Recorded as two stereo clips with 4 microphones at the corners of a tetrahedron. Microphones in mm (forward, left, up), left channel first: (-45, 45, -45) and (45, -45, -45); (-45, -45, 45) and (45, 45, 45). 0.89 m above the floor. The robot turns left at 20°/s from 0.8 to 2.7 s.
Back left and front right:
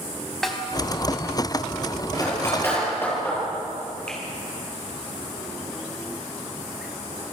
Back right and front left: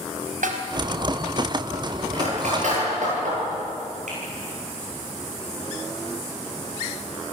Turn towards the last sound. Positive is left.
turn(degrees=55)